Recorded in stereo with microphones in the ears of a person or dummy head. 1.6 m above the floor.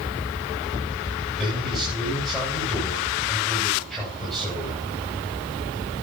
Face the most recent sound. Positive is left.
turn(degrees=0)  # may be behind; listen again after turning